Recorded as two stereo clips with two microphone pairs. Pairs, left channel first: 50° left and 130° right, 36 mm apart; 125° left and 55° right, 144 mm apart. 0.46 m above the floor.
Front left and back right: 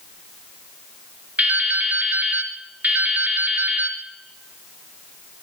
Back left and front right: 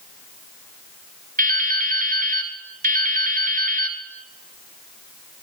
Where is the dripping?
85° right, 2 m.